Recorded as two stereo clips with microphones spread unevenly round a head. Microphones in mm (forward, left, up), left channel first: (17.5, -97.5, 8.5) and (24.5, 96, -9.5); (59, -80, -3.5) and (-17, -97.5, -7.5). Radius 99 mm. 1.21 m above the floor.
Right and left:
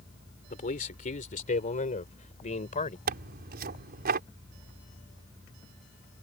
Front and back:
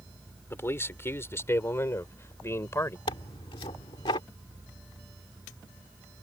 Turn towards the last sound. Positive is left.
turn(degrees=50)